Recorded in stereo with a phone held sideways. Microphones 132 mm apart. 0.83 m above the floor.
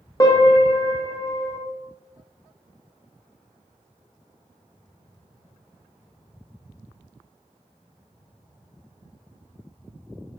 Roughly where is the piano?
Left.